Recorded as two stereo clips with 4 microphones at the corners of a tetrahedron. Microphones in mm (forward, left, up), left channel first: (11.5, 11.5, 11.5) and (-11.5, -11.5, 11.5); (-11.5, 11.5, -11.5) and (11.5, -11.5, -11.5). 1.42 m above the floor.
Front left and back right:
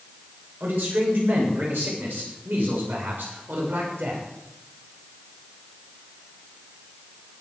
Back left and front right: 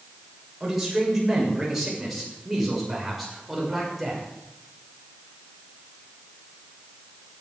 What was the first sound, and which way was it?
A man speaking, 125° right.